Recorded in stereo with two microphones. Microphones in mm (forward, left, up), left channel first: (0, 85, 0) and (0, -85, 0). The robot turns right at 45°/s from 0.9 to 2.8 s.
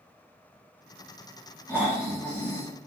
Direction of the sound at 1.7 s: 20° right.